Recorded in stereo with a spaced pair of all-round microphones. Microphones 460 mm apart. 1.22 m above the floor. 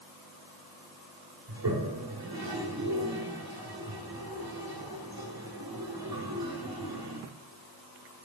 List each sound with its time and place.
1.5 s a toilet flushing: 45° right (ahead or behind), 1.9 m